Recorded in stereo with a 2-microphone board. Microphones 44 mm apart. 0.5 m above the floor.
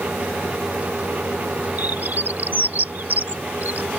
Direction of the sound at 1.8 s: 45° right (ahead or behind).